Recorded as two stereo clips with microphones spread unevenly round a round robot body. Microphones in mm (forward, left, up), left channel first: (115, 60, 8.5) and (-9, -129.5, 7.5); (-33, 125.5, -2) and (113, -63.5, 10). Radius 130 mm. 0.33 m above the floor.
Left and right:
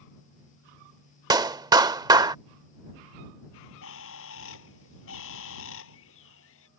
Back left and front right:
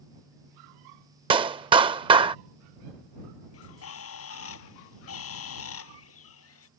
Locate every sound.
1.3 s a clap: 85° right
3.5 s a bird: 100° left